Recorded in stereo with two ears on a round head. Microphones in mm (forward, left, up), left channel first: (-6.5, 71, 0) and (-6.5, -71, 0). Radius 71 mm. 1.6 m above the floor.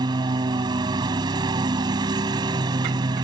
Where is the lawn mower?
30° right (ahead or behind).